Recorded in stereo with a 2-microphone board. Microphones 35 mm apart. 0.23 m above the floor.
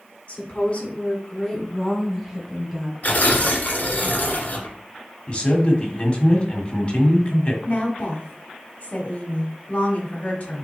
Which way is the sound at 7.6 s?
35° left (ahead or behind).